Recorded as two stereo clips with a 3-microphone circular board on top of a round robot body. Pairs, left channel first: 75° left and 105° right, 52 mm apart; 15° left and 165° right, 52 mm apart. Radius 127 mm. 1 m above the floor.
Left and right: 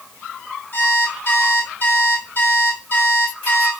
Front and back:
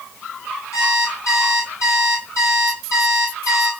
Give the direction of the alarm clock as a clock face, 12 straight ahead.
11 o'clock.